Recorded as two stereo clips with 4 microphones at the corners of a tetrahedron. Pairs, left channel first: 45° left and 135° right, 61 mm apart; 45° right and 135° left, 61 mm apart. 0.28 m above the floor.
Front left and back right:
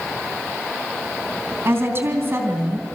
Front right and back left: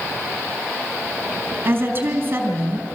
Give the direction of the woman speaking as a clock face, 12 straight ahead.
6 o'clock.